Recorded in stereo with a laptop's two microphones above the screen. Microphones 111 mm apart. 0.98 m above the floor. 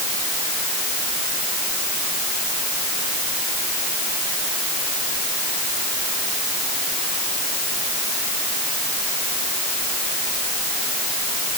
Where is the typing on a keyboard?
No typing on a keyboard in this recording.